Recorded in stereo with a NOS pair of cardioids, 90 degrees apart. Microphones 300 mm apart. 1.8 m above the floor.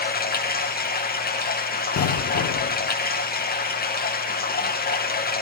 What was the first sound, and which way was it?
Running water, 30° left.